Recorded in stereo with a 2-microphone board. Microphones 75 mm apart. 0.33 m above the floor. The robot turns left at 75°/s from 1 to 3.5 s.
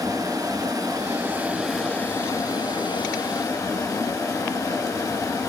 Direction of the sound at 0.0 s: 125° right.